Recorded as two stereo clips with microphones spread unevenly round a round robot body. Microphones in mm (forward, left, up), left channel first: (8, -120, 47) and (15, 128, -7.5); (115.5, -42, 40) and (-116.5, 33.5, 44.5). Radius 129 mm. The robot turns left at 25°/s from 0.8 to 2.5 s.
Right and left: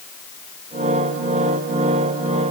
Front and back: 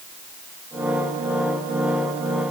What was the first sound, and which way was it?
Only background noise.